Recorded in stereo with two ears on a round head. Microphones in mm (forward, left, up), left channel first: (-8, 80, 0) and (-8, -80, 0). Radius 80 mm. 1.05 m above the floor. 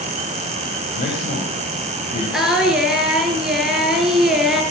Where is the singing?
Centre (ahead or behind), 4 m.